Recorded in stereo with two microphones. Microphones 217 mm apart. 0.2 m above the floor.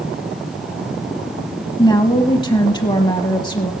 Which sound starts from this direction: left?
A woman speaking, at 1.8 s.